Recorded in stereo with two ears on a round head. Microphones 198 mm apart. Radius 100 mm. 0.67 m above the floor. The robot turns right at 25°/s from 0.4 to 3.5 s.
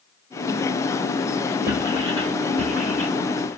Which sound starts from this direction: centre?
Writing, at 1.7 s.